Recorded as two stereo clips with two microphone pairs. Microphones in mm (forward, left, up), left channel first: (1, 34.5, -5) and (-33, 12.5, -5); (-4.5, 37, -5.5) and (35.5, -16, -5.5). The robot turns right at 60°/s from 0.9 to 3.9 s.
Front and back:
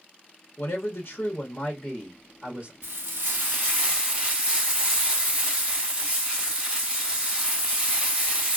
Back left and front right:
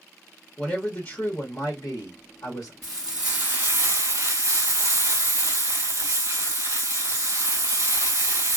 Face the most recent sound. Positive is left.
turn(degrees=-80)